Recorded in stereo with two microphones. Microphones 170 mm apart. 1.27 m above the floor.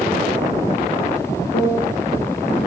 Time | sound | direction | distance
1.5 | a piano | 65° left (ahead or behind) | 1.3 m